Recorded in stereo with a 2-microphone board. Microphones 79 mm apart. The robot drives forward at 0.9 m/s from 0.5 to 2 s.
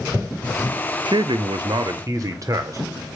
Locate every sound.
1.1 s a man speaking: 65° right (ahead or behind), 0.7 m; by 2.8 s 45° right (ahead or behind), 0.8 m